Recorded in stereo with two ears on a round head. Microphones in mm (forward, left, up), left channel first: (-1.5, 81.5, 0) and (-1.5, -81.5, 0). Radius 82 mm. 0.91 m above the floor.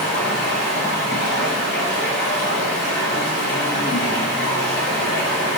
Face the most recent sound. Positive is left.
turn(degrees=55)  # may be behind; listen again after turning